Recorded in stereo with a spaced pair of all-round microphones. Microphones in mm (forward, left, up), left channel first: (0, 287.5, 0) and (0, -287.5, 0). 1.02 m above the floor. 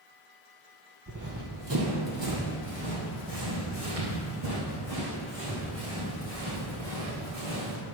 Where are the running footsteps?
30° right (ahead or behind), 1.6 m; by 7.8 s 50° right (ahead or behind), 5.5 m.